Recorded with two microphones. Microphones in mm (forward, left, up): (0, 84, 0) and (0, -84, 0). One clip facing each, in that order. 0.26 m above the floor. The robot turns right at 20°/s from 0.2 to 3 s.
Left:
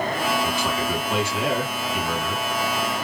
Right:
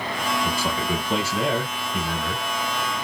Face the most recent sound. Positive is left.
turn(degrees=-75)